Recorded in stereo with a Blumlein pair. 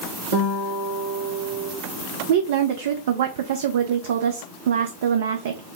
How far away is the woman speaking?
About 0.6 m.